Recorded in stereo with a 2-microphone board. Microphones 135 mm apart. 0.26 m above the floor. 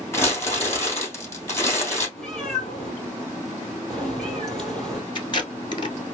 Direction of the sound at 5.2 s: 35° left (ahead or behind).